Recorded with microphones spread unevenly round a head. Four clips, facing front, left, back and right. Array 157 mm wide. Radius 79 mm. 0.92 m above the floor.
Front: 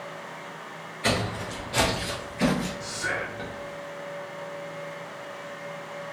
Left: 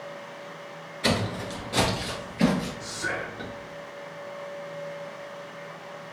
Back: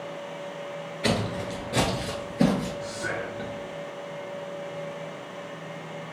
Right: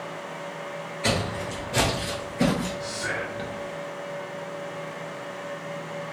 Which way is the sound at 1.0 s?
120° left.